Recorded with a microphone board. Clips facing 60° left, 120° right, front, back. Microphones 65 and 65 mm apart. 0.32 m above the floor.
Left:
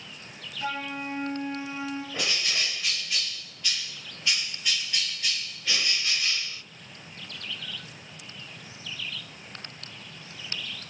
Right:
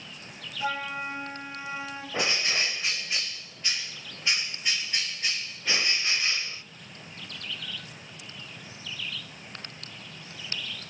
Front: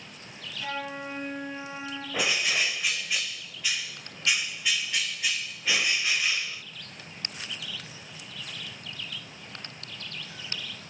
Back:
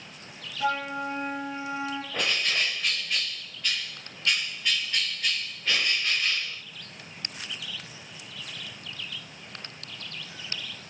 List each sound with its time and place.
0.6 s a flute: 170° left, 3.5 m
2.1 s a bird: 80° right, 0.5 m